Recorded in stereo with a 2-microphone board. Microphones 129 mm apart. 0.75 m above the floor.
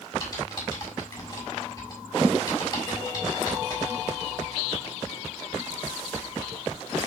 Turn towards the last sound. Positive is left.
turn(degrees=30)  # may be behind; listen again after turning